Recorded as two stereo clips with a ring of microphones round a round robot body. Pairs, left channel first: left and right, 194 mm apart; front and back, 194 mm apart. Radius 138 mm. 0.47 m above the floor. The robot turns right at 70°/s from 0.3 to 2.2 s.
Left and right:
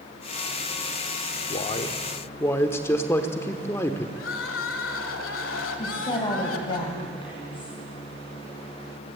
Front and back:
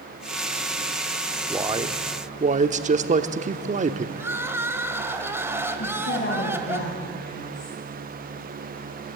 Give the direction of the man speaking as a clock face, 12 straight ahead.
8 o'clock.